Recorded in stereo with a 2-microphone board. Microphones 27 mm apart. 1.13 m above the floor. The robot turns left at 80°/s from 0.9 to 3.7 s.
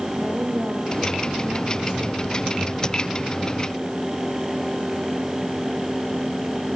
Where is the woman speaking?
80° right, 4.5 m; by 2.4 s 160° left, 4.5 m.